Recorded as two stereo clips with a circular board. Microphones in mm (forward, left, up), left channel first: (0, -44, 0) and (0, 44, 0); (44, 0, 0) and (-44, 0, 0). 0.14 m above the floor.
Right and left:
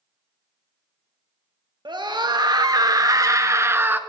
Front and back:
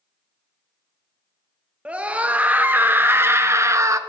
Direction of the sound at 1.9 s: 105° left.